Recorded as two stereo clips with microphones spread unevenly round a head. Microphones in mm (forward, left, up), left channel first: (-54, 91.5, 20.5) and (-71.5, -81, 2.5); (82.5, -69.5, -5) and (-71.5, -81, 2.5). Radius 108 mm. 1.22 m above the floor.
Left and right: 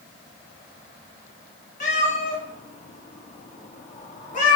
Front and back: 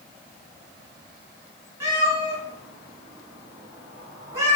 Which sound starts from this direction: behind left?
A cat meowing, at 1.8 s.